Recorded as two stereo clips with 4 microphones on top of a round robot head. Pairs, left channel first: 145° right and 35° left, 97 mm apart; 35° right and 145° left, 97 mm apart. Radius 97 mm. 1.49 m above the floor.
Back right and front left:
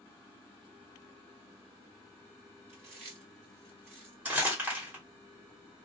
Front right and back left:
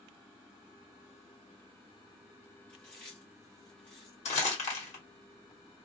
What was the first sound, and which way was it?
Chewing, 40° left.